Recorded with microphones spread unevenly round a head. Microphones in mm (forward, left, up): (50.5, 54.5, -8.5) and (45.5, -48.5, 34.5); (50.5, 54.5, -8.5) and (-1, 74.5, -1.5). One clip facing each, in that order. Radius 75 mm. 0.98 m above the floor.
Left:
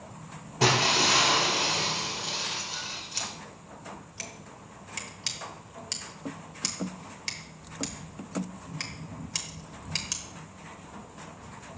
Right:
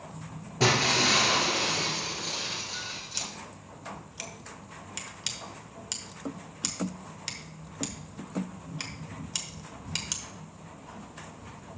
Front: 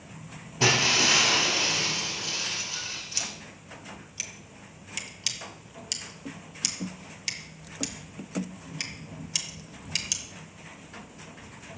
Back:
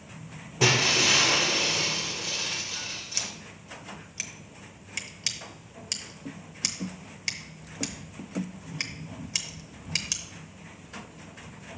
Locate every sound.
0.6 s breaking glass: 130° right, 1.7 m
3.2 s scissors: 160° left, 0.8 m